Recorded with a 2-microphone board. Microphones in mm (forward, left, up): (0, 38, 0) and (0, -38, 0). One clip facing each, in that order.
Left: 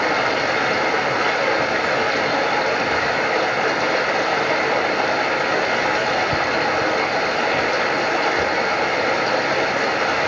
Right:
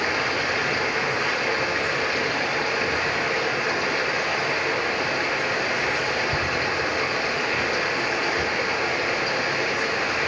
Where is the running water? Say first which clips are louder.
Left 5 dB; 75° left (ahead or behind), 4.5 m.